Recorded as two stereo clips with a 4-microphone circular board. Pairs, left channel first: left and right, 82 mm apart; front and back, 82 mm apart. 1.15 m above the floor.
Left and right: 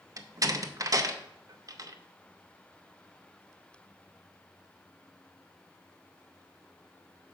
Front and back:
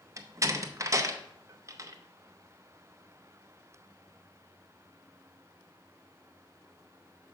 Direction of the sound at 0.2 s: 130° right.